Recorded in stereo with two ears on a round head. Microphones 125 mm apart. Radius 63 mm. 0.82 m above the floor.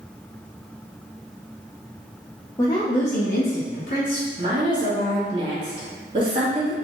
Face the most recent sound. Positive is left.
turn(degrees=-35)  # may be behind; listen again after turning